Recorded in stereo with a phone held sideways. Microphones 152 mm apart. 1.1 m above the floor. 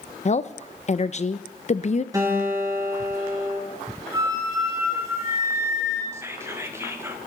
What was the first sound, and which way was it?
A woman speaking, 45° left (ahead or behind).